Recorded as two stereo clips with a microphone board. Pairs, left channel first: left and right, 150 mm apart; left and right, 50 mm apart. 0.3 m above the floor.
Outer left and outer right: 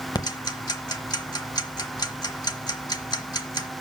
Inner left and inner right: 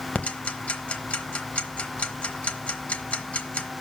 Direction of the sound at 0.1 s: 30° left (ahead or behind).